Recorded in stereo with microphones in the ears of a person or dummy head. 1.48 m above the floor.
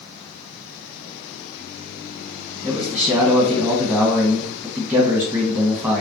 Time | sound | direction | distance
2.6 | a man speaking | 15° right (ahead or behind) | 1.5 m